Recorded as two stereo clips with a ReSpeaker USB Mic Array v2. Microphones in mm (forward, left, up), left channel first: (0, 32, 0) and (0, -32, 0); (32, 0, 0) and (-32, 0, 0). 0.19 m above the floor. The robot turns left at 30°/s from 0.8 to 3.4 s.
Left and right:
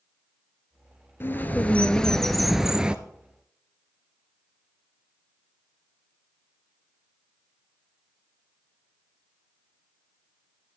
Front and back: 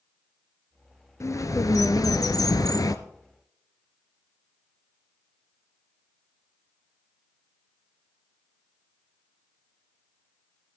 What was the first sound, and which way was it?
A bird, 35° left.